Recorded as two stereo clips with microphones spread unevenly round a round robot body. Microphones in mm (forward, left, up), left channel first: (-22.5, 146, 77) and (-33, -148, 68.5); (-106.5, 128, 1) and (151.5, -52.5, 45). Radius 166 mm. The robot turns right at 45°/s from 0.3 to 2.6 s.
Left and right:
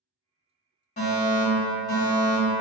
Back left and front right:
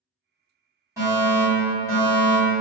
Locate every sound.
1.0 s a fire alarm: 50° left, 1.6 m; by 2.5 s 120° left, 1.6 m